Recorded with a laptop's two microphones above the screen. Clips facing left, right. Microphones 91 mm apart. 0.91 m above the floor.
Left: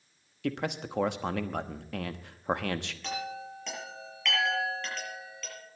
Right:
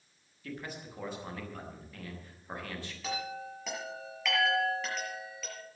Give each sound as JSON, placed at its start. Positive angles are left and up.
{"t": 0.4, "sound": "a man speaking", "side_deg": 70, "distance_m": 1.0}
{"t": 3.0, "sound": "a chime", "side_deg": -5, "distance_m": 7.5}